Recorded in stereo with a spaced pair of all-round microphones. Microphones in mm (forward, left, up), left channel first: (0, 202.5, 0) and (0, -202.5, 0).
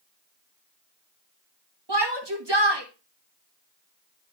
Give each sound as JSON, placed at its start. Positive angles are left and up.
{"t": 1.9, "sound": "a shout", "side_deg": -85, "distance_m": 1.9}